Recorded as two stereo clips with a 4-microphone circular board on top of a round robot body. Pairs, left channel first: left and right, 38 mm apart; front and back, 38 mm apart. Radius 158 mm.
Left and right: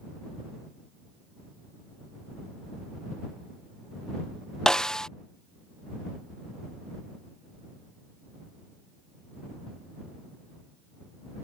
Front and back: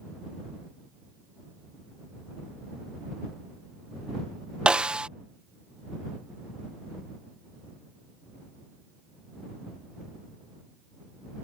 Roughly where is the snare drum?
Behind left.